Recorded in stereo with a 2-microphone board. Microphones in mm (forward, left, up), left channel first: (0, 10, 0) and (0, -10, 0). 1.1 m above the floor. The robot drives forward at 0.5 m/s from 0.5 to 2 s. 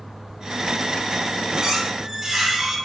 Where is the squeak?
30° right (ahead or behind), 1.5 m; by 2.8 s 35° right (ahead or behind), 1.3 m.